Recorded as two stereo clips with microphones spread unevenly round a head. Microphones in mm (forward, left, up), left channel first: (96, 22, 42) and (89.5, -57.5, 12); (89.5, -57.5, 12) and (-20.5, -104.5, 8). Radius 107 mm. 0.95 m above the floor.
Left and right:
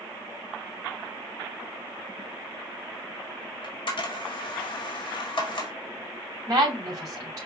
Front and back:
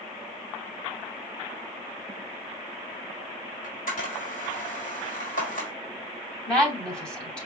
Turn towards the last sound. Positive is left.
turn(degrees=-60)